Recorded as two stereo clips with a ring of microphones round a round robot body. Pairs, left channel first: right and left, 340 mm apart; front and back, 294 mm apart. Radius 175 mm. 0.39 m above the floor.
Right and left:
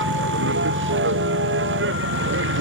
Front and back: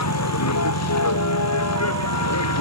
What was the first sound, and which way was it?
A vehicle, 30° left.